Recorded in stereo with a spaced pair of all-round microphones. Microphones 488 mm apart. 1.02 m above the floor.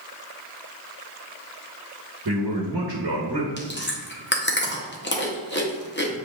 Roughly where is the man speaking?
Right.